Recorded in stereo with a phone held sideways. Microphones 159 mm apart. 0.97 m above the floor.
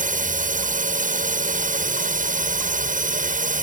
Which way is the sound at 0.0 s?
55° right (ahead or behind).